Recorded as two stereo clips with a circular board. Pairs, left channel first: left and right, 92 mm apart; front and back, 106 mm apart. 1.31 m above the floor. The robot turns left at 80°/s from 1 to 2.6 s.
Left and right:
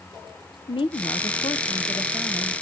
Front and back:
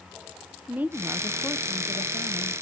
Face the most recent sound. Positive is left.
turn(degrees=-20)